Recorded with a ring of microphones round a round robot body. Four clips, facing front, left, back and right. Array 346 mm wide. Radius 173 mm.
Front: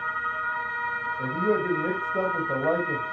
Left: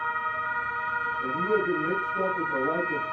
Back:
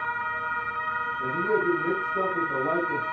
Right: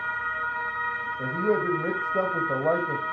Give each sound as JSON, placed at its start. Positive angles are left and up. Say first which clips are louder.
{"t": 1.2, "sound": "a man speaking", "louder": "right 2 dB, front 1 dB", "azimuth_deg": -60, "distance_m": 3.0}